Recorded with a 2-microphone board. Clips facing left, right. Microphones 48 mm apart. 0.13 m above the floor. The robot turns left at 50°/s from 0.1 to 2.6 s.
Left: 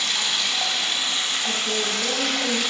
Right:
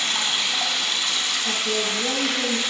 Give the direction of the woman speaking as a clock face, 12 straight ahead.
1 o'clock.